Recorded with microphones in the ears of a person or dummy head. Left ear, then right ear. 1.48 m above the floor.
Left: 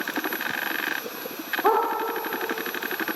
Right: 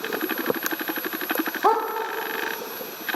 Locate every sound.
1.6 s a dog barking: 25° right (ahead or behind), 1.8 m